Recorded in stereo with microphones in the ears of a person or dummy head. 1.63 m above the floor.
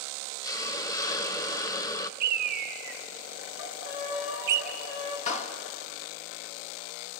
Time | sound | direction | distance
0.4 | a hiss | 20° left (ahead or behind) | 0.7 m
2.2 | a bird | 60° right (ahead or behind) | 0.9 m
3.6 | a violin | 80° left | 4 m
5.3 | a clap | 45° left (ahead or behind) | 1.7 m